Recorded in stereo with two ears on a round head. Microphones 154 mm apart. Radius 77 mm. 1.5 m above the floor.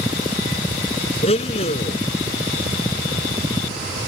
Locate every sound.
1.2 s a blender: 35° left (ahead or behind)